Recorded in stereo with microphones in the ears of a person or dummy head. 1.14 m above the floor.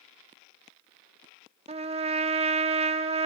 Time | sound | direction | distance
1.7 | a trumpet | 30° right (ahead or behind) | 0.5 m